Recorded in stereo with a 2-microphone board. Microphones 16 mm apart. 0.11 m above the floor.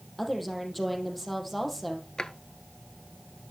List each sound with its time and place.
0.2 s a woman speaking: 5° left (ahead or behind), 4 m
2.2 s a drawer: 45° left (ahead or behind), 1.0 m